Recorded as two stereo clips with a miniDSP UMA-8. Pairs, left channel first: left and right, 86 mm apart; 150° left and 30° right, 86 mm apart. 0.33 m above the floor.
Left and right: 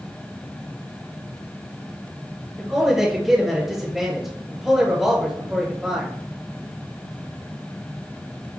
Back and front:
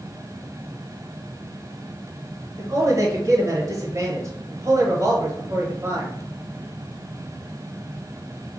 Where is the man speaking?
5° right, 1.2 m.